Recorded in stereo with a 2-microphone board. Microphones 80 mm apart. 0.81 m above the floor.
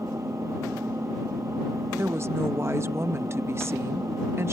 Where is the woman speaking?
35° right (ahead or behind).